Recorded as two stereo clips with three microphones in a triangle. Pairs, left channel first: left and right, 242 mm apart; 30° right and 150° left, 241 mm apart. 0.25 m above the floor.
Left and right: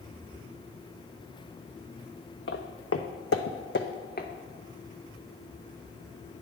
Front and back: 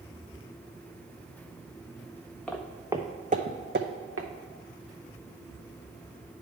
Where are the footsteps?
55° left, 0.8 m; by 4.3 s 140° left, 0.9 m.